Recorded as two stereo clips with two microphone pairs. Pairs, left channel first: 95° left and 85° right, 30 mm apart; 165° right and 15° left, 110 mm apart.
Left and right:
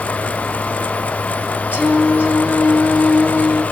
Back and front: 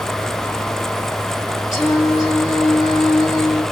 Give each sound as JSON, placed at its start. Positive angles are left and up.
{"t": 1.7, "sound": "singing", "azimuth_deg": -110, "distance_m": 2.5}